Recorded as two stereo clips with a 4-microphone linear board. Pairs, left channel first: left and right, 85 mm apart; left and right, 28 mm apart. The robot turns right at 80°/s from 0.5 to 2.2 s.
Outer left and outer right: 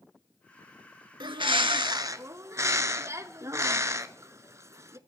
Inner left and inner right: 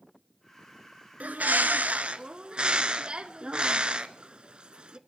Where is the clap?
I don't hear a clap.